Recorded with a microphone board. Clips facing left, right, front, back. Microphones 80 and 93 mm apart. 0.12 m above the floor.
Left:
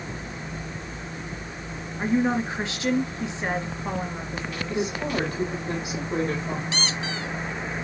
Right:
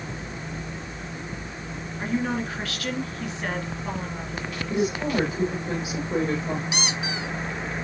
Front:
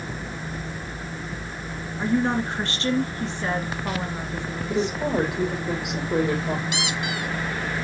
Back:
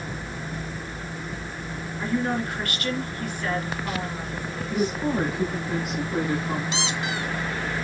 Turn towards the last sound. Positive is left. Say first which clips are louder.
# right 1 dB, even
turn(degrees=-150)